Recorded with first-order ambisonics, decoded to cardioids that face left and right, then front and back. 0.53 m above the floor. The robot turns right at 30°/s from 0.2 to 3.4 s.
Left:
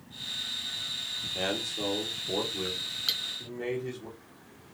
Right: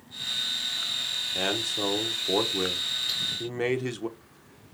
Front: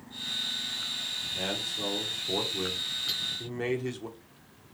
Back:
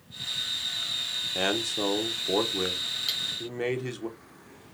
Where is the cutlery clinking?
115° left, 1.9 m; by 3.2 s 120° left, 1.9 m.